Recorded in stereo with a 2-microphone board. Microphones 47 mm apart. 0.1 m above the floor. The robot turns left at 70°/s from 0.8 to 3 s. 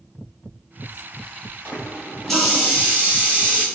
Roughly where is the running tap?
Ahead left.